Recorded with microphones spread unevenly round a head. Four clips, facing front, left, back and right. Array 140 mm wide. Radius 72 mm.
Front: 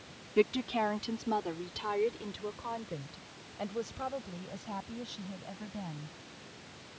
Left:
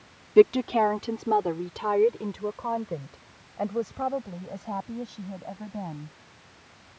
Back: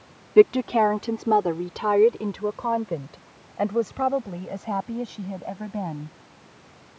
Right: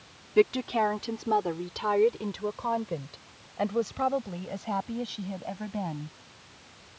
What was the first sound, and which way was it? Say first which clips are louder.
A woman speaking: left 5 dB, back 13 dB; 155° left.